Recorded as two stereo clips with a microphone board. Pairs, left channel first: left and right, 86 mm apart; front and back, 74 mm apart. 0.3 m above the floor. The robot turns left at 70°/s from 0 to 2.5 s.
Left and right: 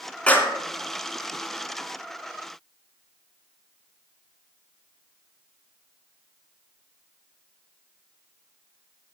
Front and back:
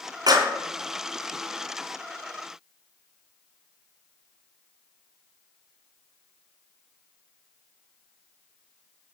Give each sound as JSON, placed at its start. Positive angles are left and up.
{"t": 0.3, "sound": "a clap", "azimuth_deg": 165, "distance_m": 2.5}